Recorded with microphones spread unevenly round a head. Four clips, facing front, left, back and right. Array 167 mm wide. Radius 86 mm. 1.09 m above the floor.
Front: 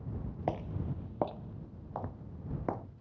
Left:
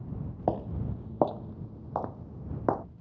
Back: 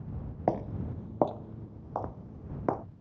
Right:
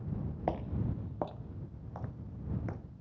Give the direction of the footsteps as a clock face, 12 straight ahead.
7 o'clock.